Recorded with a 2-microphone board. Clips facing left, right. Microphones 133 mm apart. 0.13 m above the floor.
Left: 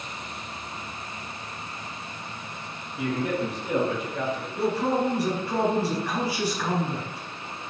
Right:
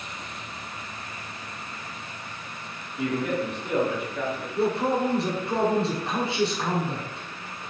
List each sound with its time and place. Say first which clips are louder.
3.0 s a man speaking: even; 5° left (ahead or behind), 1.3 m; by 4.5 s 60° left (ahead or behind), 2.5 m
4.5 s a man speaking: right 1 dB; 25° right (ahead or behind), 1.1 m